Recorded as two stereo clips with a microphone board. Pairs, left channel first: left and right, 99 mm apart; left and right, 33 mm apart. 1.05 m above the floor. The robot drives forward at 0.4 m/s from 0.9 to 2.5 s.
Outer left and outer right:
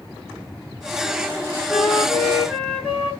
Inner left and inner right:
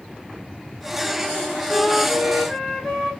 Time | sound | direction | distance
1.7 | a flute | 15° left (ahead or behind) | 2 m